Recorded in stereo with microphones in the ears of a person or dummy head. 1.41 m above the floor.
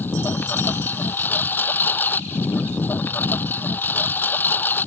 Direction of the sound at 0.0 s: 10° left (ahead or behind).